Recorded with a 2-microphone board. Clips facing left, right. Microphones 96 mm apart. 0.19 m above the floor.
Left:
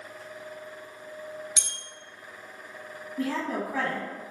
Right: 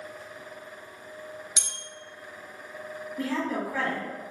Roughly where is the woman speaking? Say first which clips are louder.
Even; left.